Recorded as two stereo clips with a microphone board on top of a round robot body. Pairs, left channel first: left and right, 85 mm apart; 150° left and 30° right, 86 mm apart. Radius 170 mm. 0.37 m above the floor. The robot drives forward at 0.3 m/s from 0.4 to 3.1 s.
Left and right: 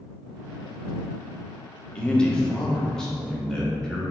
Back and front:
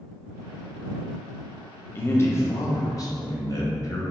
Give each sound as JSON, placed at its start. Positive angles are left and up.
{"t": 1.9, "sound": "a man speaking", "azimuth_deg": 155, "distance_m": 0.8}